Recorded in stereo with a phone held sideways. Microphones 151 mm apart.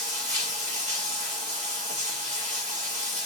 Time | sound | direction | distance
0.0 | running water | 50° right (ahead or behind) | 2 m